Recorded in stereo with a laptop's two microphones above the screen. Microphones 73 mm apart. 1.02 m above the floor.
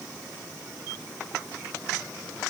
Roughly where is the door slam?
I don't hear a door slam.